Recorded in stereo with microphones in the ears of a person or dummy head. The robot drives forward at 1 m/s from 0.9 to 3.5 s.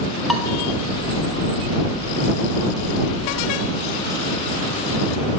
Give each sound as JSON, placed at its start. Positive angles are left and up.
{"t": 0.3, "sound": "dishes clattering", "side_deg": 0, "distance_m": 1.2}